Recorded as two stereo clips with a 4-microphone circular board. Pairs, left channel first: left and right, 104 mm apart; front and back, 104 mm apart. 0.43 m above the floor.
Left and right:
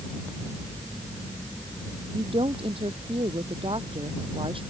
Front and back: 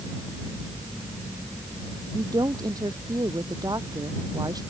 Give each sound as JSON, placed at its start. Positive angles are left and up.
{"t": 2.1, "sound": "a woman speaking", "azimuth_deg": -125}